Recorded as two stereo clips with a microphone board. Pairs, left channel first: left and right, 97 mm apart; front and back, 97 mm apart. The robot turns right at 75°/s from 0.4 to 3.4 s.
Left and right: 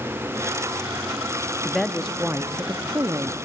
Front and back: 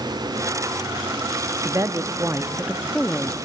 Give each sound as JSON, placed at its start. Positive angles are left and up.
{"t": 1.6, "sound": "a woman speaking", "azimuth_deg": 170, "distance_m": 0.7}